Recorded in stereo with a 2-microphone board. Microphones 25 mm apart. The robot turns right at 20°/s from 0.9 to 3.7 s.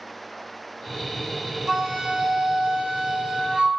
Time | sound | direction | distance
1.7 | a flute | 145° right | 1.5 m